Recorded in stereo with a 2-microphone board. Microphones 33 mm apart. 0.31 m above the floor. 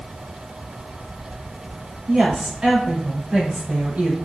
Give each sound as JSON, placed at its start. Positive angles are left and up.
{"t": 2.1, "sound": "a woman speaking", "side_deg": -10, "distance_m": 1.6}